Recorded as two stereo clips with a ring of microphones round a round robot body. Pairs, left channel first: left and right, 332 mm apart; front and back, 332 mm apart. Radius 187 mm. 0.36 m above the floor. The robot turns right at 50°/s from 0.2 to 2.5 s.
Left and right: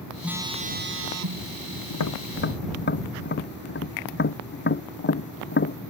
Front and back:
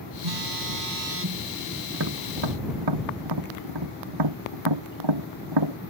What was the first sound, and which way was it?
A phone buzzing, straight behind.